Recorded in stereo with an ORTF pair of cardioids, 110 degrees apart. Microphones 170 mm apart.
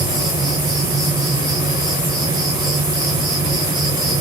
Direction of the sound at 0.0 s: 25° right.